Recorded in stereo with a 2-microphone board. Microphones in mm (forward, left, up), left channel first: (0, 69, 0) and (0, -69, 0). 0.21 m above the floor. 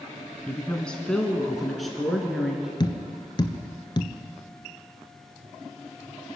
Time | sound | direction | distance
0.5 | a woman speaking | 10° left (ahead or behind) | 1.4 m
2.8 | tapping | 30° left (ahead or behind) | 1.0 m